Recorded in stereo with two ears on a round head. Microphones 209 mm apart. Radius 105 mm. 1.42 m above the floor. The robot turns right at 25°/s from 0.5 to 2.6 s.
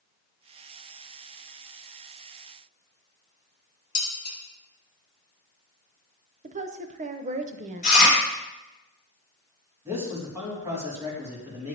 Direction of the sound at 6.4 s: 30° right (ahead or behind).